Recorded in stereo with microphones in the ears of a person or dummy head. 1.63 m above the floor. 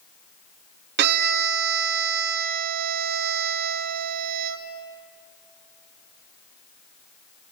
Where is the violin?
60° right (ahead or behind), 1.0 m.